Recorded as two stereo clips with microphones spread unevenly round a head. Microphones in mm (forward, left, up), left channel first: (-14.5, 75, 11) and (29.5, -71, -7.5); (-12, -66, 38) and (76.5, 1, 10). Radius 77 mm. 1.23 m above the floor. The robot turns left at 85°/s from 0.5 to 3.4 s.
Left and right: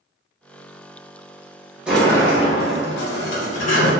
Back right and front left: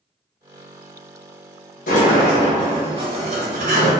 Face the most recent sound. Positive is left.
turn(degrees=70)